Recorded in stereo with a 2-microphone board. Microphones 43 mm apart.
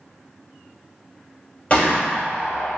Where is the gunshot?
35° left (ahead or behind), 1.6 m.